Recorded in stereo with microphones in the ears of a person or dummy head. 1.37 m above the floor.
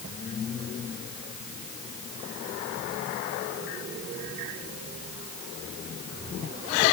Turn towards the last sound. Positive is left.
No sound to turn to.